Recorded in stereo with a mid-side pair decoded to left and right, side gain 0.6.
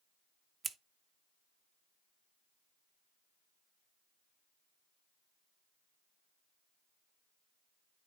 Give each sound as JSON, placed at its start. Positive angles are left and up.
{"t": 0.6, "sound": "scissors", "azimuth_deg": -25, "distance_m": 0.7}